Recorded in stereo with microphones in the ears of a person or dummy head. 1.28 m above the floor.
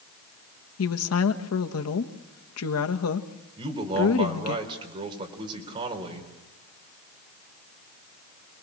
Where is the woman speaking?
85° left, 1.3 m.